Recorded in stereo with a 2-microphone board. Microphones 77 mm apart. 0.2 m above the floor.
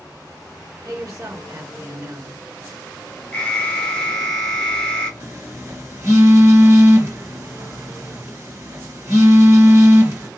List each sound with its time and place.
0.8 s a woman speaking: 40° right (ahead or behind), 3 m
3.3 s an alarm: 10° left (ahead or behind), 2.5 m
5.2 s a phone buzzing: 35° right (ahead or behind), 2.5 m